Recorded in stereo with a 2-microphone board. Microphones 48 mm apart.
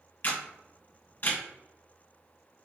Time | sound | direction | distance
0.2 | a camera shutter | 40° left (ahead or behind) | 2 m